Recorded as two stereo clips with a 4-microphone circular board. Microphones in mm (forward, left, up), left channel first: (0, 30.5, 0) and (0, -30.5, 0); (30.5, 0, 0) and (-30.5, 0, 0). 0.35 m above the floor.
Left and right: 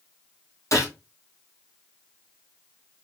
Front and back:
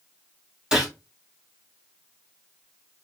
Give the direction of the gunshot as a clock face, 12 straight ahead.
9 o'clock.